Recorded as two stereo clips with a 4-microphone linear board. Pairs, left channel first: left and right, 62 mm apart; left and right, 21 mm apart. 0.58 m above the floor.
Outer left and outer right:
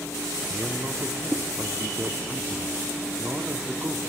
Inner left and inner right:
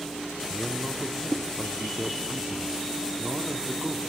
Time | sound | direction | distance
0.5 | a man speaking | 35° right (ahead or behind) | 1.1 m